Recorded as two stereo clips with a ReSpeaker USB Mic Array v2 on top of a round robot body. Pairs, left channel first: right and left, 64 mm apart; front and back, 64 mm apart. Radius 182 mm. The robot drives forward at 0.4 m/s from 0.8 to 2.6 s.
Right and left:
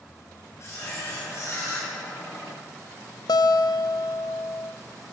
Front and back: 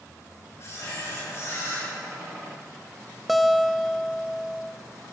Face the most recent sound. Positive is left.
turn(degrees=-90)